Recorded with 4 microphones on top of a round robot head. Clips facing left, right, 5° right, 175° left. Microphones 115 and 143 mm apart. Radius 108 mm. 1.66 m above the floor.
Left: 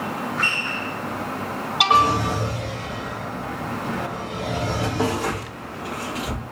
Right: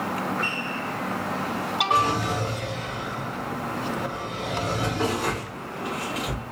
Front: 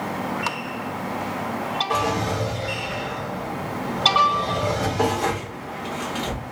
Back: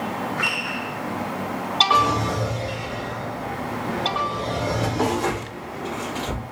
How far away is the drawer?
About 1.3 m.